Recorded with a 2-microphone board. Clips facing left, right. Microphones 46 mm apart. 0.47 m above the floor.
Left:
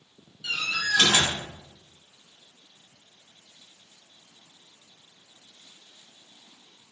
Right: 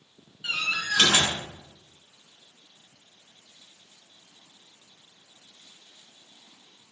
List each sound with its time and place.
0.4 s a door slam: 30° right (ahead or behind), 4 m